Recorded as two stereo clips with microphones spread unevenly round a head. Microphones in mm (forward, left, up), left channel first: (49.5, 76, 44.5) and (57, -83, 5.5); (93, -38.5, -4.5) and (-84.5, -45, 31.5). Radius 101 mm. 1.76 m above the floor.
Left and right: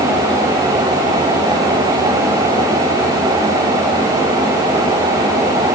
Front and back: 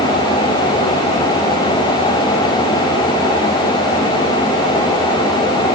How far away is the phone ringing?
No phone ringing in this recording.